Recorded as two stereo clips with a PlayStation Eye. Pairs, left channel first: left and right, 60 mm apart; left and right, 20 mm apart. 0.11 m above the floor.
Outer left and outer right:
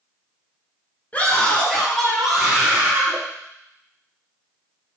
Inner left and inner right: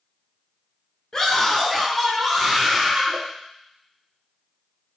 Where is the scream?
25° left (ahead or behind), 2.0 m; by 3.2 s 20° right (ahead or behind), 3.5 m.